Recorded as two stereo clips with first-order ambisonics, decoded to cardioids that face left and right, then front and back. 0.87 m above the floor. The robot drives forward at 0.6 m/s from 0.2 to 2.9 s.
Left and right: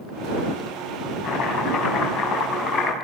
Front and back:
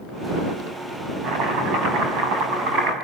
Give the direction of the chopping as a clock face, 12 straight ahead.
7 o'clock.